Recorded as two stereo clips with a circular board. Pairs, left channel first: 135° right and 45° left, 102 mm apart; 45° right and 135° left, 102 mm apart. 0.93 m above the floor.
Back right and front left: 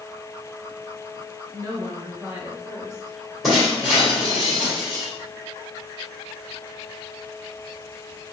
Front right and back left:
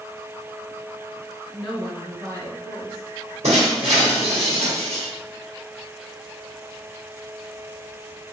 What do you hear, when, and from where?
1.5 s a woman speaking: 20° left, 0.9 m; by 4.4 s 140° left, 2.5 m
3.4 s breaking glass: 135° left, 1.8 m